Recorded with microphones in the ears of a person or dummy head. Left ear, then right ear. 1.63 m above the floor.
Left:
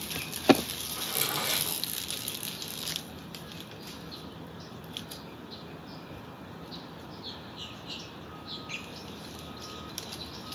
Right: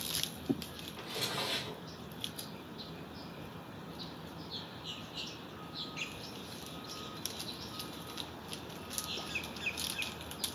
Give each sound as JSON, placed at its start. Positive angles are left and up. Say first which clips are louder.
{"t": 1.0, "sound": "a drawer", "louder": "left 4 dB", "side_deg": 45, "distance_m": 1.9}